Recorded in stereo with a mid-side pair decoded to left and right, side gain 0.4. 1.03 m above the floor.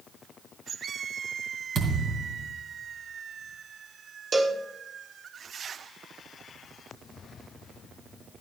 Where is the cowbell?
45° right, 1.5 m.